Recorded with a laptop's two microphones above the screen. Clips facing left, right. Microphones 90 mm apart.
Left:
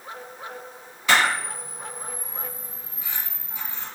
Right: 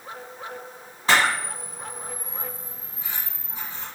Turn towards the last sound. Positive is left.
turn(degrees=-35)  # may be behind; listen again after turning